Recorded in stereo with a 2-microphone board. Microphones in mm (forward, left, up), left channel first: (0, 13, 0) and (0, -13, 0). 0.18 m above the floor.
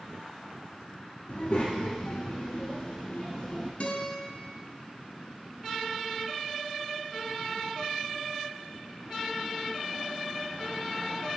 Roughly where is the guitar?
Left.